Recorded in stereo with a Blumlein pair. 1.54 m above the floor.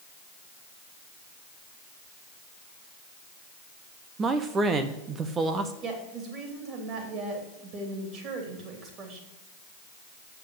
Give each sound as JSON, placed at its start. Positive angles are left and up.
{"t": 4.2, "sound": "a man speaking", "azimuth_deg": -20, "distance_m": 0.9}
{"t": 5.8, "sound": "a woman speaking", "azimuth_deg": -35, "distance_m": 3.0}